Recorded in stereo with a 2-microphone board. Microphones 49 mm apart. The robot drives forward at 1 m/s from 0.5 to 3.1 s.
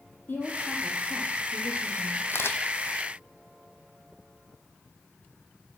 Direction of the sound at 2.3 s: 60° left (ahead or behind).